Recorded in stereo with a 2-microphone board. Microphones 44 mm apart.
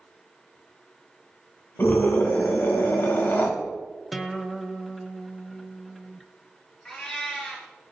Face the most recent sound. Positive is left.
turn(degrees=5)  # may be behind; listen again after turning